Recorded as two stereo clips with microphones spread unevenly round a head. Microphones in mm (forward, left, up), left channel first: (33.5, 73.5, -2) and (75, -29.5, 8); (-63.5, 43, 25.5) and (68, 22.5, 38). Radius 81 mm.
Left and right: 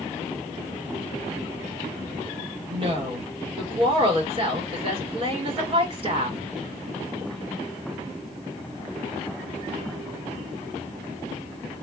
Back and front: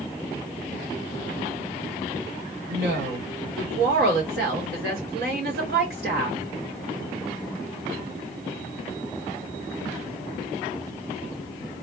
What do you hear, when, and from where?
2.7 s a woman speaking: 35° right, 3 m